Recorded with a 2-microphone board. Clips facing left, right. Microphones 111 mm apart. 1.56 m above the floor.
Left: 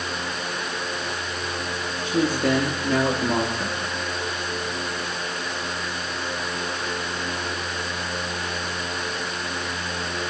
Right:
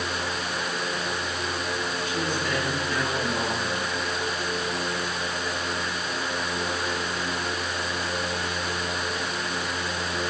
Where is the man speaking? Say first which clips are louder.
Left 10 dB; 80° left, 3.5 m.